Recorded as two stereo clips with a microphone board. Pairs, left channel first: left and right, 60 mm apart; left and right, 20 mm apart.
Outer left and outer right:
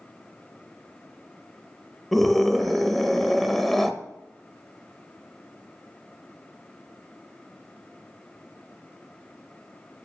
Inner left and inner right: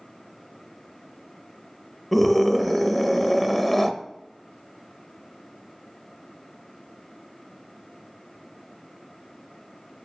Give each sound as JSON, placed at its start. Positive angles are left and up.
{"t": 2.1, "sound": "a scream", "side_deg": 0, "distance_m": 1.0}